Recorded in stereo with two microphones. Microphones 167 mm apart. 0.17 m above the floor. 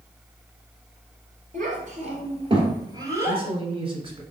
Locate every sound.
1.5 s a child speaking: 50° right (ahead or behind), 2 m; by 3.4 s 10° right (ahead or behind), 1.7 m
3.3 s a man speaking: 30° right (ahead or behind), 1.2 m